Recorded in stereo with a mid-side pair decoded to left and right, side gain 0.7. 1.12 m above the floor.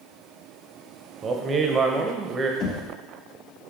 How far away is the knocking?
About 0.9 m.